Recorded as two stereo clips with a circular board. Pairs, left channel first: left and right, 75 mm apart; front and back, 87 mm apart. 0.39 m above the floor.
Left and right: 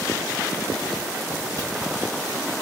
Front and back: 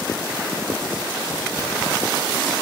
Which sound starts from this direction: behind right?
Chewing, at 1.6 s.